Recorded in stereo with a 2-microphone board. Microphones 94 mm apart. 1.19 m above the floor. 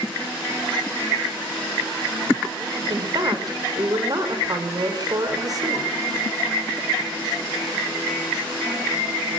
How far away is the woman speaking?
About 4 m.